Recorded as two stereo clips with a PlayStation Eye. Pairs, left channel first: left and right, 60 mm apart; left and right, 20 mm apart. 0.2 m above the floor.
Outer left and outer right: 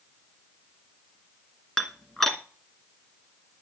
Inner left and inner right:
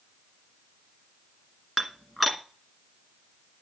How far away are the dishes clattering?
About 1.6 m.